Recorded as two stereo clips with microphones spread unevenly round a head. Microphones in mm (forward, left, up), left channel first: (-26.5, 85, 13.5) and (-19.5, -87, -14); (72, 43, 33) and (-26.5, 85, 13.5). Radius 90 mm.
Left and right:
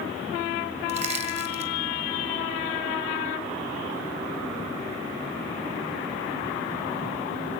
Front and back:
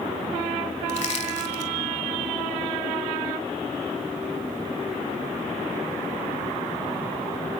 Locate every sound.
0.9 s crushing: 30° right, 1.8 m